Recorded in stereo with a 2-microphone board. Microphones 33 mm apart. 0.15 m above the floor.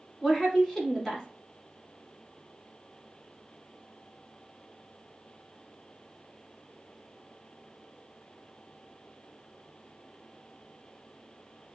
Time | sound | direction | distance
0.2 | a woman speaking | 15° left (ahead or behind) | 1.0 m